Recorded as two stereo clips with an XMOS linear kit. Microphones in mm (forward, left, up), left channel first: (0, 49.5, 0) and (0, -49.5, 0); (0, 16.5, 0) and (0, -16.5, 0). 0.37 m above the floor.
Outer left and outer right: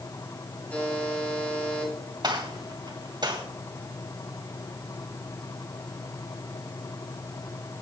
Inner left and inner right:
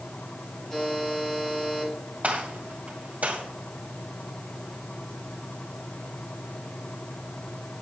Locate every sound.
0.7 s a buzzer: 15° left (ahead or behind), 7.5 m
2.2 s a gunshot: 45° right (ahead or behind), 2.5 m